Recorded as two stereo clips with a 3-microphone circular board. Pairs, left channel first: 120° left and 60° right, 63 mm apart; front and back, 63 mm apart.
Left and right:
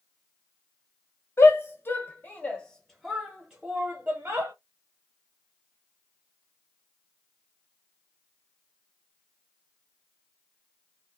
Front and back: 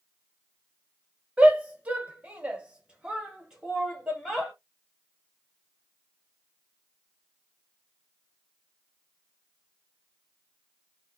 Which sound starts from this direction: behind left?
A shout, at 1.4 s.